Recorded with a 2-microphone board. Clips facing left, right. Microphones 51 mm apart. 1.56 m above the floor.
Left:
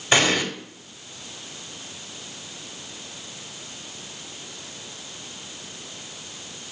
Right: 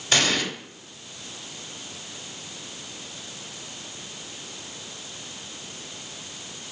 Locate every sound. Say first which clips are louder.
0.1 s an explosion: left 3 dB; 20° left (ahead or behind), 3 m